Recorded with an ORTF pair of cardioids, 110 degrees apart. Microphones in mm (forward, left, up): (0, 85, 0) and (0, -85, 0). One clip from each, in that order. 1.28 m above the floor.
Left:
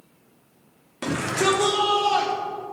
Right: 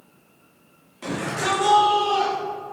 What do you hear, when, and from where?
1.0 s a shout: 55° left, 2.5 m; by 2.3 s 75° left, 3.5 m